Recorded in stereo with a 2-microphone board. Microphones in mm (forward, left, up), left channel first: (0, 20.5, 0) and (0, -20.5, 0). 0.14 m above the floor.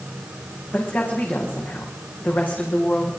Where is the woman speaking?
55° left (ahead or behind), 9 m; by 3.1 s 50° left (ahead or behind), 8.5 m.